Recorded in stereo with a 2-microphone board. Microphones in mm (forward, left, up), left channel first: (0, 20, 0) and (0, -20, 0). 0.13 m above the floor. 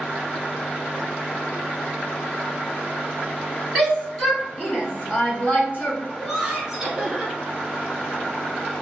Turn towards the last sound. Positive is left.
turn(degrees=0)  # may be behind; listen again after turning